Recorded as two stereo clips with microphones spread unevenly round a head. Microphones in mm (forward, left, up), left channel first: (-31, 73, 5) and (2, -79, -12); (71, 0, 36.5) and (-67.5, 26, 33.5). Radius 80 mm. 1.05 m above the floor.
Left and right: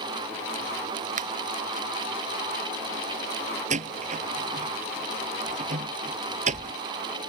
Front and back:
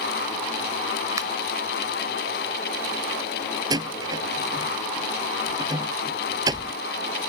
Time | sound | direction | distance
1.2 | a finger snap | 120° right | ?
3.7 | a door slam | 125° right | ?